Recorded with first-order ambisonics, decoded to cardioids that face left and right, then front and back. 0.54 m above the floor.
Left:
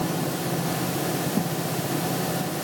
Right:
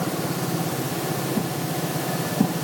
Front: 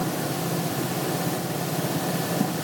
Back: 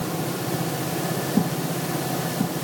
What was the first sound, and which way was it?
Only background noise.